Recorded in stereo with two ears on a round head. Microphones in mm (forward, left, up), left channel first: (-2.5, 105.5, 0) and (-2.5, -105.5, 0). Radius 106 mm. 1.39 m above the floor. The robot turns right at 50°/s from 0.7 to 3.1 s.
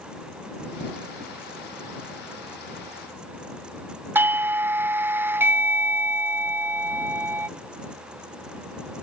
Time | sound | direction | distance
4.2 | a doorbell | 10° right (ahead or behind) | ?